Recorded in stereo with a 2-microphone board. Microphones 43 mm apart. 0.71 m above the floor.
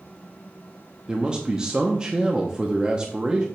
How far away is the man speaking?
About 0.7 m.